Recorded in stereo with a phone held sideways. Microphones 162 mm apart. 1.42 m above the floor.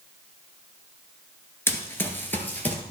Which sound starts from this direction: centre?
Running footsteps, at 1.7 s.